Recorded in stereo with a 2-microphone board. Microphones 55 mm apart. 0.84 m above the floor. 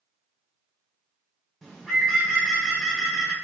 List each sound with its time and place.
1.6 s a bird: 10° left (ahead or behind), 0.9 m